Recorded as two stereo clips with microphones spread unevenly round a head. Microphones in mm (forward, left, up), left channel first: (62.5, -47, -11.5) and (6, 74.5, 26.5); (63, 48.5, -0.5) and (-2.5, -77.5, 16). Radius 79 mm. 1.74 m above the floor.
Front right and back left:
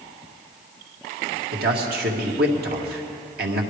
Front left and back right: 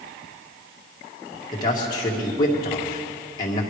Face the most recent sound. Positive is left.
turn(degrees=130)